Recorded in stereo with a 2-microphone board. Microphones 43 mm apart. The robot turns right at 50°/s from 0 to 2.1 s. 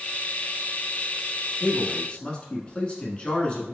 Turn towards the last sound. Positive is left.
turn(degrees=25)  # may be behind; listen again after turning